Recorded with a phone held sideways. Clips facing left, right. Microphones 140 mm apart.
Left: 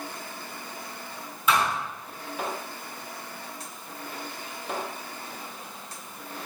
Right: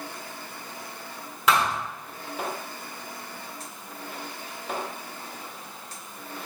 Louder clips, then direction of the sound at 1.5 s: Right 1 dB; 80° right.